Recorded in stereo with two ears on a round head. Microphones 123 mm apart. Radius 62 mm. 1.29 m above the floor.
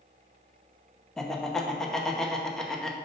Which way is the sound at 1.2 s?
5° left (ahead or behind).